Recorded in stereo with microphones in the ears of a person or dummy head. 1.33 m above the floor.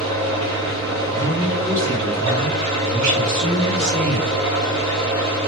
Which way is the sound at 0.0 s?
35° right (ahead or behind).